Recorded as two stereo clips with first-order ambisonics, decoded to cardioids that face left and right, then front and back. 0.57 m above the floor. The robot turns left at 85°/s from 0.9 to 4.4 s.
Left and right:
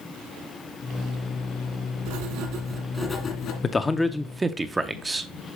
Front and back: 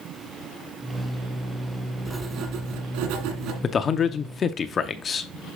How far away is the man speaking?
About 0.6 m.